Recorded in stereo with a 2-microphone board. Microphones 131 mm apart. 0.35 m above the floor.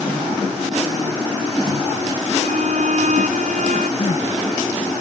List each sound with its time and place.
2.4 s a violin: 70° right (ahead or behind)
4.0 s crying: 60° left (ahead or behind)